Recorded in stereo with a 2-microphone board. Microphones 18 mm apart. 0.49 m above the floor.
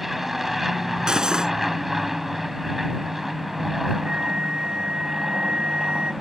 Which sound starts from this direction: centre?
An aircraft, at 0.0 s.